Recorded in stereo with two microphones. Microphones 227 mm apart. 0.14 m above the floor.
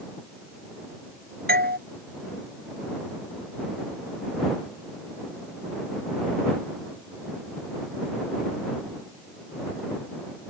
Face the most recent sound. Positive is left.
turn(degrees=-45)  # may be behind; listen again after turning